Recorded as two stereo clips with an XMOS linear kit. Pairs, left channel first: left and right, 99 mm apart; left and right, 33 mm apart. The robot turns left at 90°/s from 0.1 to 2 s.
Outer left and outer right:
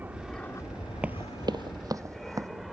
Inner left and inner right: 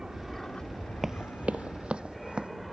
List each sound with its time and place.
0.0 s an aircraft: 15° right (ahead or behind); by 2.7 s centre (ahead or behind)
1.0 s running footsteps: 15° right (ahead or behind); by 2.5 s 35° right (ahead or behind)